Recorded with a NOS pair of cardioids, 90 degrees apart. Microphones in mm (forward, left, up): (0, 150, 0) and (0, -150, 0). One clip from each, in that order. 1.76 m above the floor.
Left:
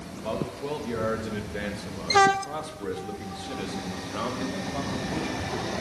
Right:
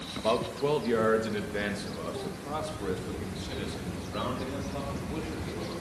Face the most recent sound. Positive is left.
turn(degrees=35)